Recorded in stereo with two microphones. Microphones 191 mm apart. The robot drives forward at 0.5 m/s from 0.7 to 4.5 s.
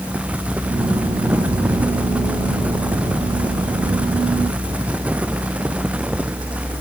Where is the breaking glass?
No breaking glass in this recording.